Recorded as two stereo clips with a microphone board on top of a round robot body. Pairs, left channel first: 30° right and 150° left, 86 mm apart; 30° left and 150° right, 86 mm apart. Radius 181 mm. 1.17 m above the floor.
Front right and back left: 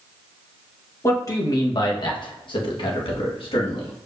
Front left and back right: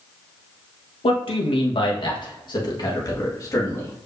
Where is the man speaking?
25° left, 1.5 m; by 3.9 s 30° right, 2.5 m.